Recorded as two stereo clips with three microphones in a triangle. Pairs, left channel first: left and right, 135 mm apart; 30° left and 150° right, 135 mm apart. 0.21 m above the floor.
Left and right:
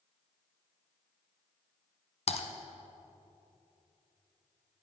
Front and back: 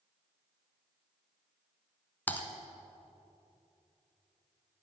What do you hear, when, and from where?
2.3 s typing on a keyboard: 105° left, 1.1 m